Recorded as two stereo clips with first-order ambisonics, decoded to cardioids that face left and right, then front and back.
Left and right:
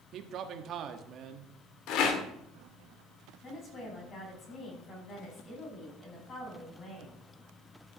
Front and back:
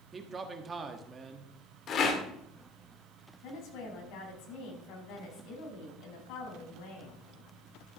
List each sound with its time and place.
0.1 s a man speaking: 115° right, 1.3 m
1.9 s a rattle: 55° left, 1.8 m
3.4 s a woman speaking: 25° left, 4.5 m